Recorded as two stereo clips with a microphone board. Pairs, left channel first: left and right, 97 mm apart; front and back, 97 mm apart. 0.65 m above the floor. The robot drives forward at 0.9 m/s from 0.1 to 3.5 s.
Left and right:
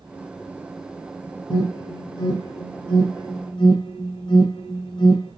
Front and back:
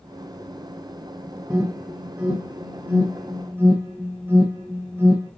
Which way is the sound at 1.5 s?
100° left.